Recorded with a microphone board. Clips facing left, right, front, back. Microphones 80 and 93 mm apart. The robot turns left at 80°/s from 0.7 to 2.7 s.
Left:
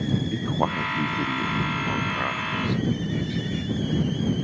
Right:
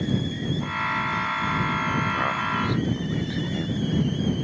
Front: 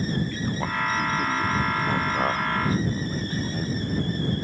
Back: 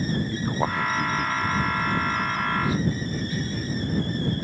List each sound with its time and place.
0.3 s a man speaking: 115° left; by 3.8 s 45° right